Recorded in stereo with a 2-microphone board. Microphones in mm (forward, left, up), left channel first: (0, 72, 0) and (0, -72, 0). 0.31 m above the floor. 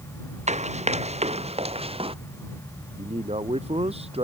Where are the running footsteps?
50° right (ahead or behind); by 2.1 s 40° right (ahead or behind).